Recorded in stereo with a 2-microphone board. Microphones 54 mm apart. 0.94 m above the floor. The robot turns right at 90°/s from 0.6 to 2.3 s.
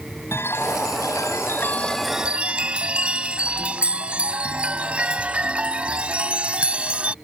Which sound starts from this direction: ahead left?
A chime, at 0.3 s.